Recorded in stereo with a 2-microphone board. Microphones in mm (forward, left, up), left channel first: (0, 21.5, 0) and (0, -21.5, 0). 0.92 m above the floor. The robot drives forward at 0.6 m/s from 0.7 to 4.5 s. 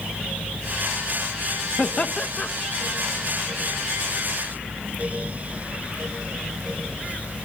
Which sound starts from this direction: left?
Laughter, at 1.8 s.